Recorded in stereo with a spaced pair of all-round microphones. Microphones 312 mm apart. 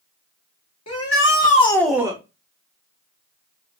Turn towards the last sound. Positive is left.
turn(degrees=-15)  # may be behind; listen again after turning